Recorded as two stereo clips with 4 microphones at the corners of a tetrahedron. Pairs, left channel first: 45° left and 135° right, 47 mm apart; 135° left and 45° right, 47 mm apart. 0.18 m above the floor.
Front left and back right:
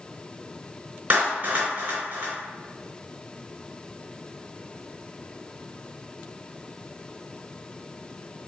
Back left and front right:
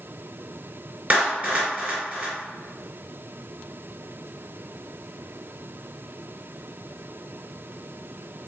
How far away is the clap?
About 2.5 m.